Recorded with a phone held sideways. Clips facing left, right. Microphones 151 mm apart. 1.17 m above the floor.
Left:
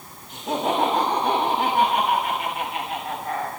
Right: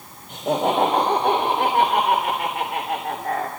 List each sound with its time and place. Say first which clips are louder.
0.3 s laughter: right 3 dB; 75° right (ahead or behind), 5 m